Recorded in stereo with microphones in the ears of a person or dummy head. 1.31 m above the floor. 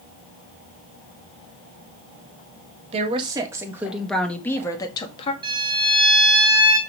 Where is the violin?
25° right (ahead or behind), 1.8 m.